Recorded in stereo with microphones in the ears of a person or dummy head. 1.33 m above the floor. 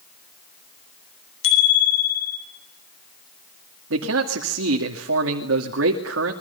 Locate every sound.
1.4 s a bicycle bell: 80° left, 8.5 m
3.9 s a man speaking: 80° right, 2 m